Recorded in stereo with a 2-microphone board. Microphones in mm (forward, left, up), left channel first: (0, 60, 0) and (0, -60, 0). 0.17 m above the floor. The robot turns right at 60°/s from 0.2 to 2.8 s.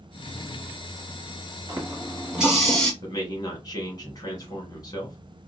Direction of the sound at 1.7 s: 55° right.